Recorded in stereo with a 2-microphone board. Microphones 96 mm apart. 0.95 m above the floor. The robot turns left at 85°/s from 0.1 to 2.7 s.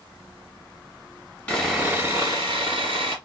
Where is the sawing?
20° left, 1.9 m; by 3.1 s 85° right, 1.9 m.